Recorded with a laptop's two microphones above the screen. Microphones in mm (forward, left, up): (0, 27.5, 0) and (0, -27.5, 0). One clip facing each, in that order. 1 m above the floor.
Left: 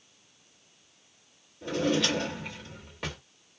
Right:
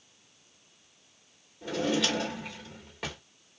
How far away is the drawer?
About 1.2 m.